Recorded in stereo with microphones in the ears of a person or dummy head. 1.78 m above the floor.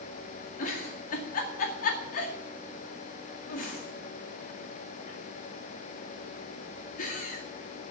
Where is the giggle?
50° left (ahead or behind), 2 m.